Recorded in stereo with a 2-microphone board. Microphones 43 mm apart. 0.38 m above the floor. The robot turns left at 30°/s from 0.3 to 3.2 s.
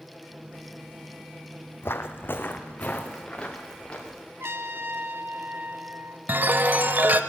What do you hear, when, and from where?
1.8 s footsteps: 60° left (ahead or behind), 0.7 m; by 4.2 s 20° left (ahead or behind), 2.5 m
4.4 s a trumpet: 60° right (ahead or behind), 0.7 m
6.3 s a chime: 45° right (ahead or behind), 0.5 m